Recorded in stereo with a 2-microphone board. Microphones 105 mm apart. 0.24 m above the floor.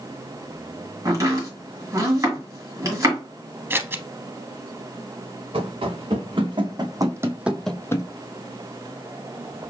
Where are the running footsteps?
60° right (ahead or behind), 1.9 m; by 8.1 s 40° left (ahead or behind), 0.6 m.